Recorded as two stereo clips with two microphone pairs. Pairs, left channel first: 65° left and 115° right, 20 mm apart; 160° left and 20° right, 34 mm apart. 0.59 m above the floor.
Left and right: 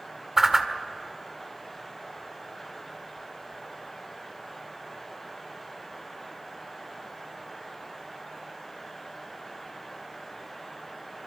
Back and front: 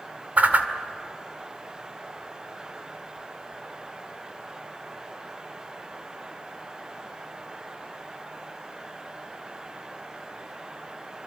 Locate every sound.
0.4 s a whoosh: 45° right, 1.8 m